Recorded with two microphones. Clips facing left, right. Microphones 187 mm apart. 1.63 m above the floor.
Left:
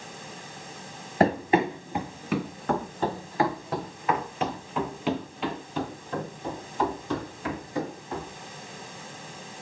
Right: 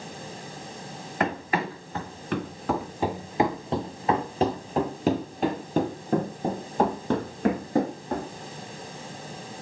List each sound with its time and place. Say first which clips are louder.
1.2 s running footsteps: left 6 dB; 30° left (ahead or behind), 1.9 m; by 8.3 s 55° right (ahead or behind), 5.5 m